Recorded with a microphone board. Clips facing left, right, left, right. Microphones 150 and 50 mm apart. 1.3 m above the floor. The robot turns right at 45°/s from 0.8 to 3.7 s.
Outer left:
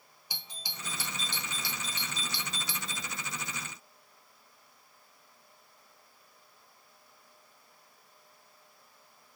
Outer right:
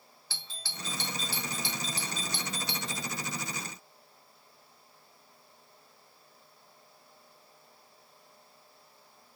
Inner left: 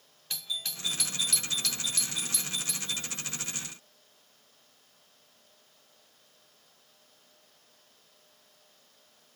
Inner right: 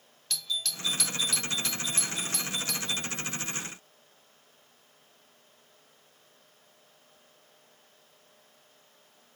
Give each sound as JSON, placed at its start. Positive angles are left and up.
{"t": 0.3, "sound": "a doorbell", "side_deg": 15, "distance_m": 1.3}